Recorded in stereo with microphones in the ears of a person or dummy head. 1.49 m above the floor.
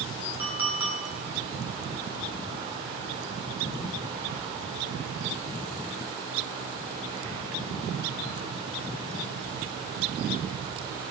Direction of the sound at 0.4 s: 10° right (ahead or behind).